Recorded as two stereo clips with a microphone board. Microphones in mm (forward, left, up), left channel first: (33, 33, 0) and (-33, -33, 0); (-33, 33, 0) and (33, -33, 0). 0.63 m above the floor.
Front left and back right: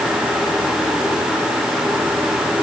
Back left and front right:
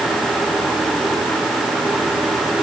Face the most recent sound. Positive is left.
No sound to turn to.